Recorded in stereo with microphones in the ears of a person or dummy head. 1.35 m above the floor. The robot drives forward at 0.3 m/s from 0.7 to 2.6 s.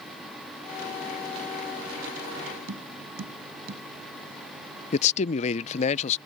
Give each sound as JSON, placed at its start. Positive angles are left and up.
{"t": 2.7, "sound": "tapping", "side_deg": -75}
{"t": 4.9, "sound": "a man speaking", "side_deg": 35}